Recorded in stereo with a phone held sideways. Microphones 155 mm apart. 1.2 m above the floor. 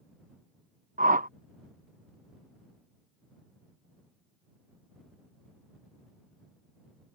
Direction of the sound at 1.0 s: 60° right (ahead or behind).